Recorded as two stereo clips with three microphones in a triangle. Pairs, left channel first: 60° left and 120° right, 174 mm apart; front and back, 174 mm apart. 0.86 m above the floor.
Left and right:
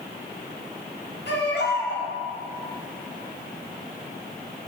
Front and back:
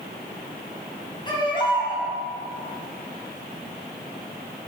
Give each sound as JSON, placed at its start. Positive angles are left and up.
{"t": 1.3, "sound": "a baby crying", "azimuth_deg": 65, "distance_m": 4.0}